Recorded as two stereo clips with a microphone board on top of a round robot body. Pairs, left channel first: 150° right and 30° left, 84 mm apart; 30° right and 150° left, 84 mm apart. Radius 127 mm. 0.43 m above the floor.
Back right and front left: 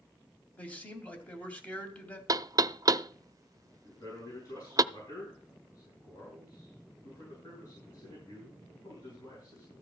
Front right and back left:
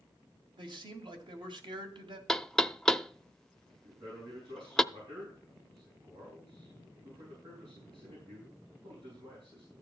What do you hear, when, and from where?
0.6 s a man speaking: 135° left, 2.5 m
2.3 s knocking: 50° left, 0.6 m
3.8 s a man speaking: 165° left, 6.5 m